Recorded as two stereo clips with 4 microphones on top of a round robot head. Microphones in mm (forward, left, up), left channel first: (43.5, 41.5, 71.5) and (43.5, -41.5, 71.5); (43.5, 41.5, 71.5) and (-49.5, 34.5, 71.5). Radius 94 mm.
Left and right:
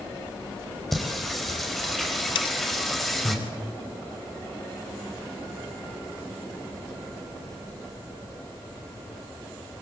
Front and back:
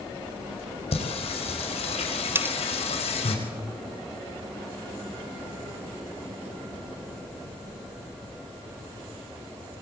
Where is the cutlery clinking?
115° left, 0.6 m.